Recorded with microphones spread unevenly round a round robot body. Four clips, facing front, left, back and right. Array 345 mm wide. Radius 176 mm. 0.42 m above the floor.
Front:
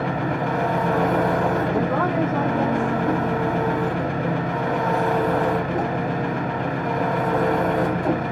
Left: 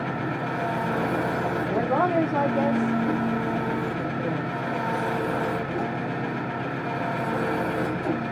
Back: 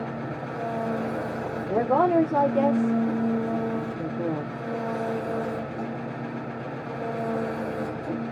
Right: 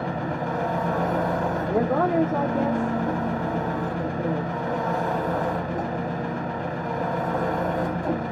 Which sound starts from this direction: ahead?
An engine running, at 0.0 s.